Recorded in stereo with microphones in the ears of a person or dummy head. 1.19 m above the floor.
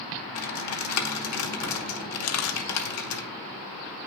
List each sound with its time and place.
0.3 s typing on a keyboard: 75° left (ahead or behind), 1.0 m
2.2 s a camera shutter: 90° left, 0.6 m